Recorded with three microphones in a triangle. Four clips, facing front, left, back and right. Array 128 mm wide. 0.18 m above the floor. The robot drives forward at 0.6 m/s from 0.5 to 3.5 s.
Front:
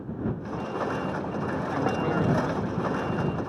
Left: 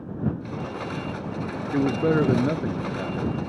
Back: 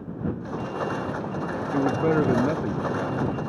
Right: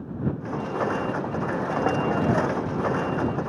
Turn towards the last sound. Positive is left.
turn(degrees=145)